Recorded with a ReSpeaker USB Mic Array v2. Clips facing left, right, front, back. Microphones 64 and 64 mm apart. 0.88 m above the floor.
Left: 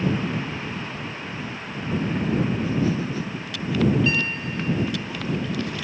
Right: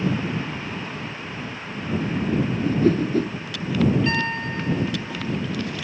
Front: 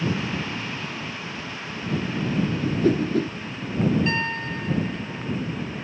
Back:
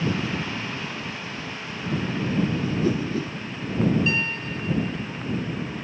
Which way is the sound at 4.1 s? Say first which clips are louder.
Right 1 dB, front 1 dB; 45° right.